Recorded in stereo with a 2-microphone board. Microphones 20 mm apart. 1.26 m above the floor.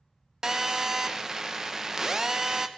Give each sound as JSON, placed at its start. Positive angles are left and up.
{"t": 0.4, "sound": "a phone buzzing", "side_deg": -20, "distance_m": 0.6}